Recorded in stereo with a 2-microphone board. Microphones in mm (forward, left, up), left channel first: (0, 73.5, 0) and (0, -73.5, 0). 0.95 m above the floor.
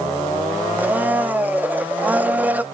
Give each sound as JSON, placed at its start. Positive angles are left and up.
{"t": 0.8, "sound": "a blender", "side_deg": -10, "distance_m": 0.5}